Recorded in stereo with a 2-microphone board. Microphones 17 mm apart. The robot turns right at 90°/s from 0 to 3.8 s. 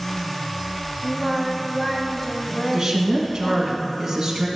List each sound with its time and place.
1.0 s singing: 25° right (ahead or behind), 1.2 m; by 3.7 s 20° left (ahead or behind), 1.2 m
2.7 s a woman speaking: 120° right, 1.5 m; by 4.5 s 25° right, 1.5 m